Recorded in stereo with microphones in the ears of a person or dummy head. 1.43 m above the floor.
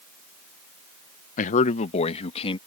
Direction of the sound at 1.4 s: 45° left (ahead or behind).